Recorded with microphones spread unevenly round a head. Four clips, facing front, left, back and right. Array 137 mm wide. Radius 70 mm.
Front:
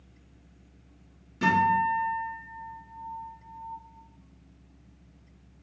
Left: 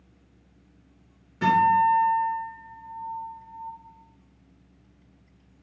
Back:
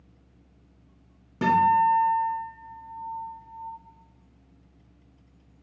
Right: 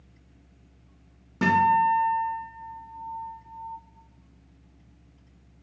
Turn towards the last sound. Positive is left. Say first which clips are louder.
# left 1 dB, back 4 dB
turn(degrees=-140)